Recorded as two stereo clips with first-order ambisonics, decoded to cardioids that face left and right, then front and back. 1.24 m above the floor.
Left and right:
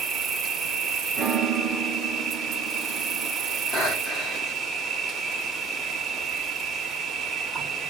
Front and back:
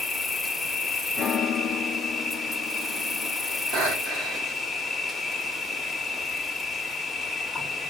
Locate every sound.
0.0 s an insect: 85° right, 0.8 m
1.2 s a piano: 45° right, 0.6 m
3.7 s breathing: 145° left, 1.2 m